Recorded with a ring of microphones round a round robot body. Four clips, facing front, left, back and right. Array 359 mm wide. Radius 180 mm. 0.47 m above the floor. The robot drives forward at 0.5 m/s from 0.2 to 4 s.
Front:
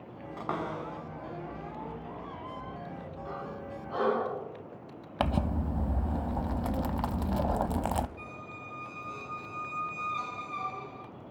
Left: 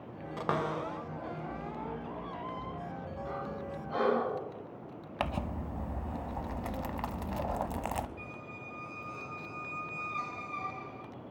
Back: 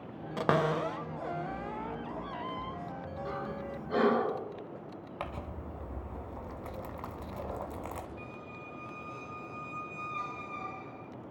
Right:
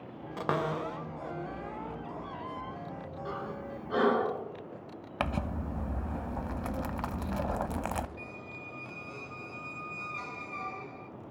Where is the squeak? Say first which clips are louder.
Right 1 dB, front 1 dB; 35° right, 0.7 m.